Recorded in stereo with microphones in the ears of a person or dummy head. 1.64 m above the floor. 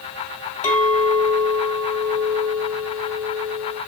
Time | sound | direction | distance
0.6 | a clink | 45° left (ahead or behind) | 1.7 m